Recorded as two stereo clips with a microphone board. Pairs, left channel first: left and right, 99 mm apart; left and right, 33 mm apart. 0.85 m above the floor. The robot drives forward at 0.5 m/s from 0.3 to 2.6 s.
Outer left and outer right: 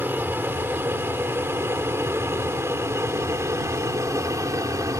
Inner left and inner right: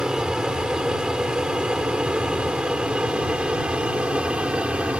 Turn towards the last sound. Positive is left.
turn(degrees=-35)  # may be behind; listen again after turning